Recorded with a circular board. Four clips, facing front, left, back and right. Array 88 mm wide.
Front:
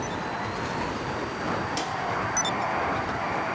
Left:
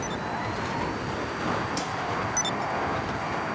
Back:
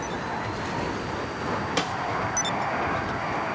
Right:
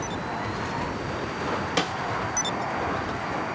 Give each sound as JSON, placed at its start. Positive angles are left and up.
{"t": 1.8, "sound": "a snare drum", "azimuth_deg": -120, "distance_m": 0.6}